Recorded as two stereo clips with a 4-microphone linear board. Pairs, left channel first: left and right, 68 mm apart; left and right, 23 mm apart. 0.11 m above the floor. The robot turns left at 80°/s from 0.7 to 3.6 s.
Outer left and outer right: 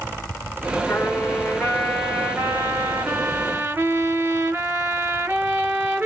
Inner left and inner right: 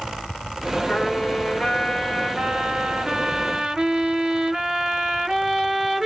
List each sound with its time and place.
0.9 s a trumpet: 80° left, 2.0 m; by 6.1 s 135° right, 2.0 m